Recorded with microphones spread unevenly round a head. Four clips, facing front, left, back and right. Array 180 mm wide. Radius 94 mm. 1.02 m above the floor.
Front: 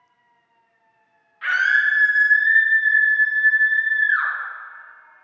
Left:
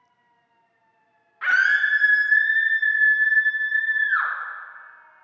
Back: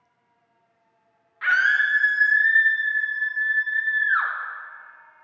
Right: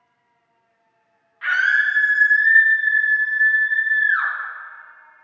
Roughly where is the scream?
Left.